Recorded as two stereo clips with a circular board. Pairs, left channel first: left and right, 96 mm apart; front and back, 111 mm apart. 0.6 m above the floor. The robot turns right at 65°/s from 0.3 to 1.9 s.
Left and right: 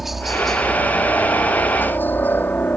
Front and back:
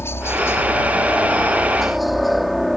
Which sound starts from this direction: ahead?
A helicopter, at 0.0 s.